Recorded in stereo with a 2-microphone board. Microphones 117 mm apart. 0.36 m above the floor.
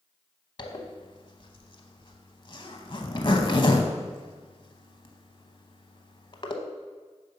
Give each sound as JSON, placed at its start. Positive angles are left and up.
{"t": 0.6, "sound": "a zipper", "side_deg": 45, "distance_m": 0.7}